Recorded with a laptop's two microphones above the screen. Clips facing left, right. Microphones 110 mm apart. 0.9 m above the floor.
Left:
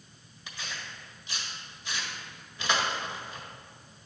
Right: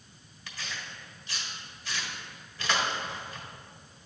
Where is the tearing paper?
20° left (ahead or behind), 1.5 m.